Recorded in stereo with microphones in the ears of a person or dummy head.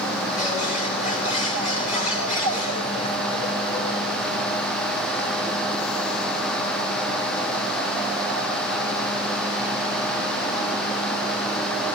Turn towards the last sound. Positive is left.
turn(degrees=40)  # may be behind; listen again after turning